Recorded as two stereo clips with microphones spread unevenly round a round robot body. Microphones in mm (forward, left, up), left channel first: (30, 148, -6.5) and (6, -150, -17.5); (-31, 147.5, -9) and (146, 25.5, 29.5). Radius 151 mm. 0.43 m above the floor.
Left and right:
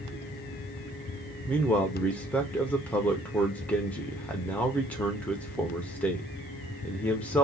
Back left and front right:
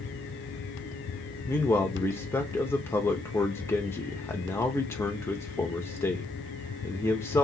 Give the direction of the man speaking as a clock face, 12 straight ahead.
6 o'clock.